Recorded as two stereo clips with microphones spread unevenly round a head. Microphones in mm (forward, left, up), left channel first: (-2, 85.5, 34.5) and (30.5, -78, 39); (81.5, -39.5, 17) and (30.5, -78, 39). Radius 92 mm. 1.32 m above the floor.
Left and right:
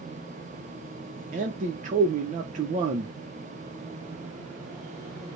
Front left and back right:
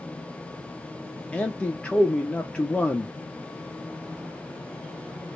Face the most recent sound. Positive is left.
turn(degrees=-30)